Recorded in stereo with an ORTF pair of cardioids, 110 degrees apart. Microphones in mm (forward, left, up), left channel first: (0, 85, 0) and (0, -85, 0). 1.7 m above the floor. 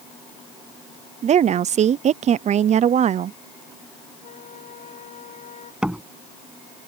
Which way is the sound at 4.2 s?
45° left.